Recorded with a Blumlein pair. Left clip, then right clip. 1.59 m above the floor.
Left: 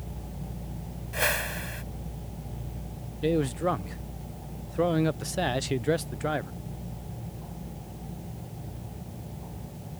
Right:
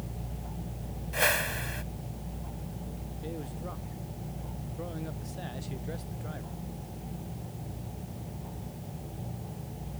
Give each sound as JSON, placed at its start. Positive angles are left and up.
{"t": 1.1, "sound": "a whoosh", "azimuth_deg": 0}
{"t": 3.2, "sound": "a man speaking", "azimuth_deg": 55}